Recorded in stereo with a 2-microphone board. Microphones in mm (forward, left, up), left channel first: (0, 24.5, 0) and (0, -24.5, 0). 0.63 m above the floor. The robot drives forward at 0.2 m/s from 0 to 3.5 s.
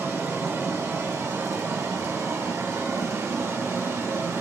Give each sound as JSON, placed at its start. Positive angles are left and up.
{"t": 0.0, "sound": "running water", "side_deg": -60, "distance_m": 1.1}